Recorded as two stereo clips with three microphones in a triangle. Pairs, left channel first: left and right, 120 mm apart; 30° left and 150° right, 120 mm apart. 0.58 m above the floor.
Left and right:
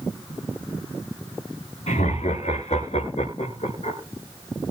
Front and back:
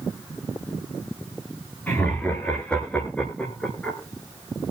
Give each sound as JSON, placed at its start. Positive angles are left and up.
{"t": 1.9, "sound": "laughter", "azimuth_deg": 105, "distance_m": 7.5}